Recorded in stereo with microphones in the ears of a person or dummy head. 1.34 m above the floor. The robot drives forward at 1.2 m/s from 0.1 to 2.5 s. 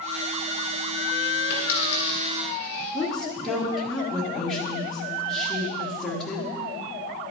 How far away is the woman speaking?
About 1.0 m.